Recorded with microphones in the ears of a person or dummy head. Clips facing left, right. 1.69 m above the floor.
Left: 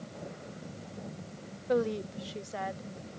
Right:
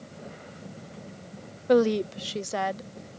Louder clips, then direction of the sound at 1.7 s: Right 8 dB; 75° right (ahead or behind).